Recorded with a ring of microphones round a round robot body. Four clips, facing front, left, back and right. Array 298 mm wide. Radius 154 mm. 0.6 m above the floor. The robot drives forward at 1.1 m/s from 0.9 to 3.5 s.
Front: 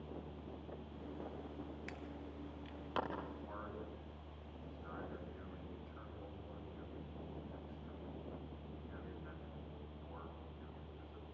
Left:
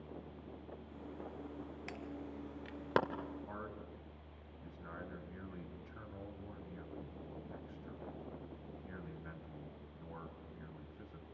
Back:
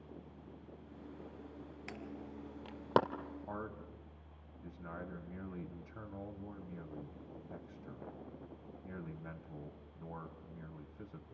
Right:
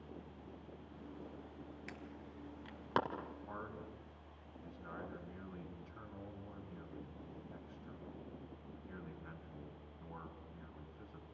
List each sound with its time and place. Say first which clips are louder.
1.9 s an alarm: left 6 dB, back 2 dB; 135° left, 1.5 m; by 3.0 s 155° left, 2.5 m
3.5 s a man speaking: left 1 dB, back 3 dB; 165° left, 4 m